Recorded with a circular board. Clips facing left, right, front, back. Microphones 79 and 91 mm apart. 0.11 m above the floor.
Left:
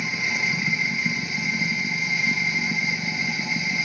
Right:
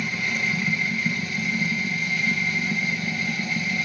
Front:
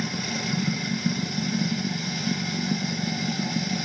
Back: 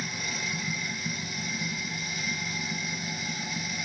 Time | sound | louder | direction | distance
0.0 | running water | even, front 6 dB | 15° left | 1.2 m